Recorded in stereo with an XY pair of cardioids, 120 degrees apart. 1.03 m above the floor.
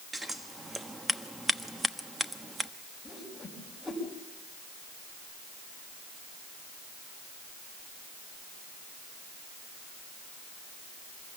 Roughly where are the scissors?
Ahead.